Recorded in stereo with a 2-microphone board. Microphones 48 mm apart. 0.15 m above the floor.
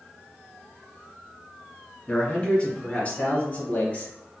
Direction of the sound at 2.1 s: 25° left (ahead or behind).